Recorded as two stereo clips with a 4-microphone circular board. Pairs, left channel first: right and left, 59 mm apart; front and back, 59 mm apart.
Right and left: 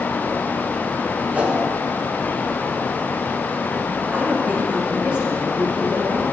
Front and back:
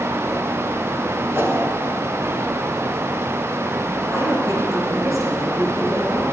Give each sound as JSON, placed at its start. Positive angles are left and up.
{"t": 1.3, "sound": "a whoosh", "azimuth_deg": 150, "distance_m": 1.0}
{"t": 4.1, "sound": "a woman speaking", "azimuth_deg": 160, "distance_m": 3.0}